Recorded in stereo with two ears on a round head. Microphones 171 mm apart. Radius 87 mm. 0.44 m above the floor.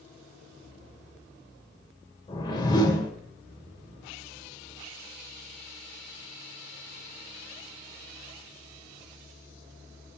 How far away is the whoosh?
About 2 m.